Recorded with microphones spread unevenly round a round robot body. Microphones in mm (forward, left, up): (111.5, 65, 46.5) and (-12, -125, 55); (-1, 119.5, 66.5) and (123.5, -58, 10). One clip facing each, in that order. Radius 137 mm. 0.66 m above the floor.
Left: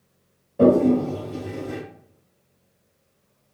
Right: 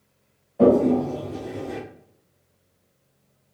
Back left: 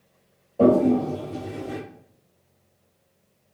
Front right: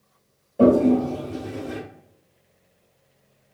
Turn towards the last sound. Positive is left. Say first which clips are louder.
# left 1 dB, front right 2 dB
turn(degrees=20)